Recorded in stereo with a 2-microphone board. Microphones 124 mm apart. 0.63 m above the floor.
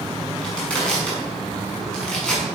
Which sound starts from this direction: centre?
Crushing, at 0.4 s.